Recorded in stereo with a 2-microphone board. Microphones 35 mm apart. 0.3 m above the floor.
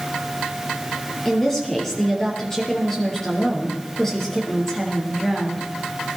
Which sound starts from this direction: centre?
A woman speaking, at 1.2 s.